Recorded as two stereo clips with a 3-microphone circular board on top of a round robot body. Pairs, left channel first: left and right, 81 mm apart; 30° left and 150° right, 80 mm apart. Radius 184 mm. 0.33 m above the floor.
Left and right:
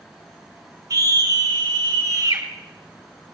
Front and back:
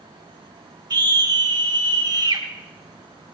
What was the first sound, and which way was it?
A scream, 120° right.